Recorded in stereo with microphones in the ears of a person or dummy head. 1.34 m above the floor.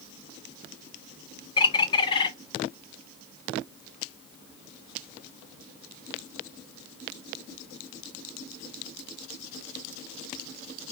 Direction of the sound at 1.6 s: 30° left (ahead or behind).